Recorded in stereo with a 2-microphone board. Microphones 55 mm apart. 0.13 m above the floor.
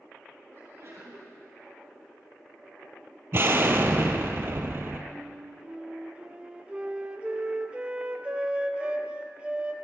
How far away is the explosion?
About 0.6 m.